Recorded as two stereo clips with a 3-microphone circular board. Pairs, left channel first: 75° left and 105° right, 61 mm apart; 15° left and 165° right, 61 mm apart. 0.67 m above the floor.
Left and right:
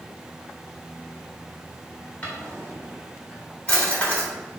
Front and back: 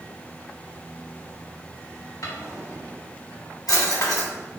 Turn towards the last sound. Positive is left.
turn(degrees=10)